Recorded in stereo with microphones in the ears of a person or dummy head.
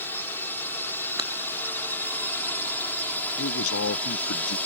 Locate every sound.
0.0 s a drone: 15° left (ahead or behind); by 4.7 s 10° left (ahead or behind)
1.2 s breaking glass: 25° right (ahead or behind)
3.4 s a man speaking: 75° left (ahead or behind)